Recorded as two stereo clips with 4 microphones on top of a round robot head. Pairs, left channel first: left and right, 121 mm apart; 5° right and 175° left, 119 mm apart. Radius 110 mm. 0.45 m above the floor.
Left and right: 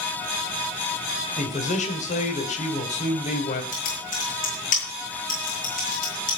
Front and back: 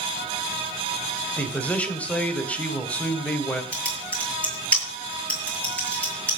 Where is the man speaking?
70° left, 3 m.